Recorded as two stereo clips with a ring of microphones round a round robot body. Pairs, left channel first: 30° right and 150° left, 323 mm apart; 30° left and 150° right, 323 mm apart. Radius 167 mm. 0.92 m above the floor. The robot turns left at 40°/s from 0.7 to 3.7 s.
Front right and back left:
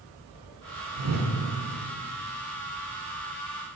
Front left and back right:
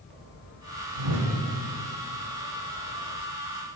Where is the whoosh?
155° right, 1.2 m; by 1.3 s 170° right, 1.2 m.